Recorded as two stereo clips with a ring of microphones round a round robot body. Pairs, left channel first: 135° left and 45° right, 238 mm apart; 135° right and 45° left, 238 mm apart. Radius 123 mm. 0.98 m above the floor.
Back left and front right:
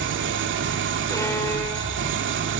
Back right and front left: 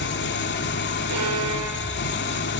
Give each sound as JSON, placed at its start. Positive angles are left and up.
{"t": 0.0, "sound": "an engine running", "azimuth_deg": -85, "distance_m": 2.0}
{"t": 1.1, "sound": "a violin", "azimuth_deg": 60, "distance_m": 4.5}